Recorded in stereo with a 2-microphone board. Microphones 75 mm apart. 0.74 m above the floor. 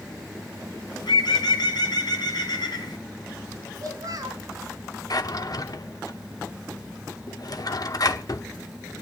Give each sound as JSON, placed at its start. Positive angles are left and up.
{"t": 0.9, "sound": "a bird", "side_deg": 70, "distance_m": 2.5}
{"t": 3.8, "sound": "a child speaking", "side_deg": -55, "distance_m": 3.0}
{"t": 5.1, "sound": "a drawer", "side_deg": 55, "distance_m": 0.9}